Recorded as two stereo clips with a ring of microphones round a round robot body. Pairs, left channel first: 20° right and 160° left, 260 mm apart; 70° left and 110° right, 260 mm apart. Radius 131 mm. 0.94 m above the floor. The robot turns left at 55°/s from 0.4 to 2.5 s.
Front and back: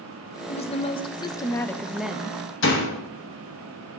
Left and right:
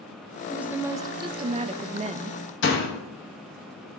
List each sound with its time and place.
0.5 s a woman speaking: 30° right, 0.5 m; by 2.4 s 135° right, 0.5 m
2.6 s a door slam: 20° left, 1.3 m